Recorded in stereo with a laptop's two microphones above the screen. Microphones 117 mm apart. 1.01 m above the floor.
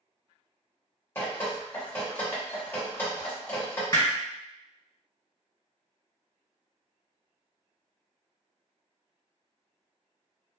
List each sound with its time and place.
1.1 s dripping: 20° left (ahead or behind), 0.9 m
3.9 s hammering: 35° left (ahead or behind), 1.5 m